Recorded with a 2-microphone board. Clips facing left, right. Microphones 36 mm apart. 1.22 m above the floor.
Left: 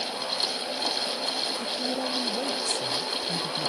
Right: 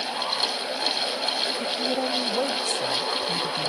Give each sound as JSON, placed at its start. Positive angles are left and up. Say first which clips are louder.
{"t": 1.6, "sound": "a woman speaking", "louder": "right 4 dB", "side_deg": -30}